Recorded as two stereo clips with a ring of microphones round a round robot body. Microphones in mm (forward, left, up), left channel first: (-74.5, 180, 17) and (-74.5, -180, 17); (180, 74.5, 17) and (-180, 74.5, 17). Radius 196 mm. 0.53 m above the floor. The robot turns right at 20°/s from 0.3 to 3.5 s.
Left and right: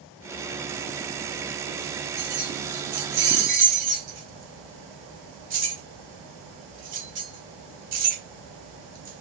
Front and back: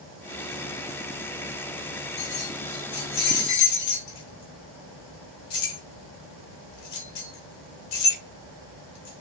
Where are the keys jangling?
50° right, 1.4 m; by 9.2 s 20° right, 1.4 m.